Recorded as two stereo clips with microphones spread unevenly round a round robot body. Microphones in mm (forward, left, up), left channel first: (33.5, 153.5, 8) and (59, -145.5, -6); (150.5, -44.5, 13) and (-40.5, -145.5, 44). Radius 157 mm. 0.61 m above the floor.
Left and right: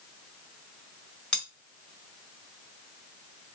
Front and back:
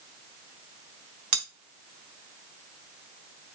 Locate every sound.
1.3 s cutlery clinking: straight behind, 1.4 m